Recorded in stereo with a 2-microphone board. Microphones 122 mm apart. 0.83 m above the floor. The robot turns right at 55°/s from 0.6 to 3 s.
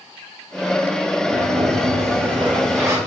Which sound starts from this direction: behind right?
A sliding door, at 1.3 s.